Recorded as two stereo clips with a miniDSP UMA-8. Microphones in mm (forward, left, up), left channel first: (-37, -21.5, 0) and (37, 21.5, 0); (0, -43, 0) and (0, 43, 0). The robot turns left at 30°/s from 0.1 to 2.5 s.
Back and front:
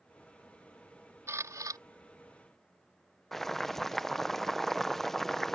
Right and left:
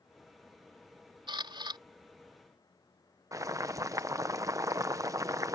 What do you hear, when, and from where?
1.3 s a camera shutter: 85° left; by 1.8 s 70° left
3.3 s boiling: 125° left